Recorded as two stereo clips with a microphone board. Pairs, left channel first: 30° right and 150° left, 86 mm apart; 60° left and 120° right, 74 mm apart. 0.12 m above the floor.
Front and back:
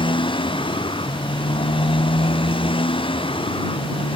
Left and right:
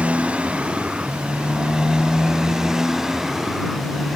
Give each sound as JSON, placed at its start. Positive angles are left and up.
{"t": 0.0, "sound": "a motorcycle", "azimuth_deg": -45}